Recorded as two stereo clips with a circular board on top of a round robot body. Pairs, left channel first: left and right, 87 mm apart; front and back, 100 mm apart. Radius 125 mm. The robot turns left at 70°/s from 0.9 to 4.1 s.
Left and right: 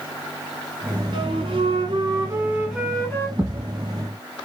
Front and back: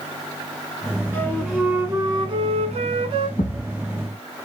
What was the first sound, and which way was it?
A flute, 70° right.